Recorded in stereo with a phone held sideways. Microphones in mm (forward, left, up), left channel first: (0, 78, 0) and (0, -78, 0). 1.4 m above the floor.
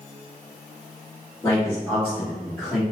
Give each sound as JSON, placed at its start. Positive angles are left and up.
{"t": 1.4, "sound": "a man speaking", "side_deg": 20, "distance_m": 1.6}